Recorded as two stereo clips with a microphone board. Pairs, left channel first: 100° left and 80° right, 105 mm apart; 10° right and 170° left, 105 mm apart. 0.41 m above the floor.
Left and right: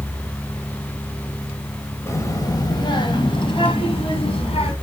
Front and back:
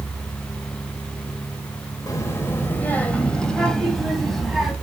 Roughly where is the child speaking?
Ahead left.